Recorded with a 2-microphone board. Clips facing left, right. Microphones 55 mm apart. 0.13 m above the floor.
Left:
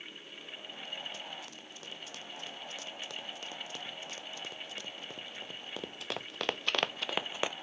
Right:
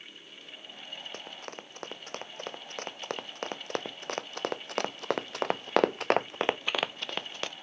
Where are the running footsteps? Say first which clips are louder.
Right 3 dB; 55° right (ahead or behind); by 7.5 s 20° left (ahead or behind).